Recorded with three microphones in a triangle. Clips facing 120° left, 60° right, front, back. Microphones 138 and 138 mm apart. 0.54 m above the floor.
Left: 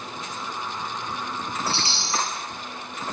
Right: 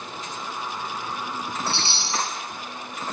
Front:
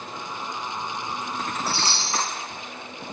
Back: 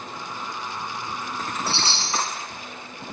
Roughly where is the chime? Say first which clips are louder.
Even, even; behind right.